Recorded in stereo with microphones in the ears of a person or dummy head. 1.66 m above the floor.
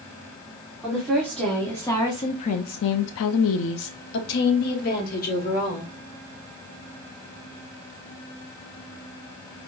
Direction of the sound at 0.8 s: 5° right (ahead or behind).